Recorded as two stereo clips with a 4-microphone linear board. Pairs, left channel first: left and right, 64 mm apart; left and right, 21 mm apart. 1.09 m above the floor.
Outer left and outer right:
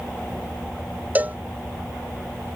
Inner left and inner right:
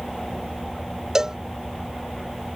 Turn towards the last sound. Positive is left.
turn(degrees=-25)  # may be behind; listen again after turning